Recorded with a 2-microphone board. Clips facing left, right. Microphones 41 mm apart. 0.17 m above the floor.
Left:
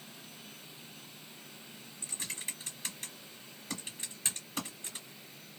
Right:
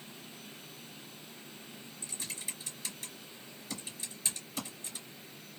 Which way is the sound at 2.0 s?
45° left (ahead or behind).